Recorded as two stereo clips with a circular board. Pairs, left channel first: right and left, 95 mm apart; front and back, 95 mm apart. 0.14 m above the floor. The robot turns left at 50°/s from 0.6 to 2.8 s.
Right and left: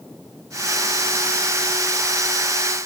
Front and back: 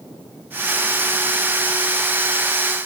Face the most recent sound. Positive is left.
No sound to turn to.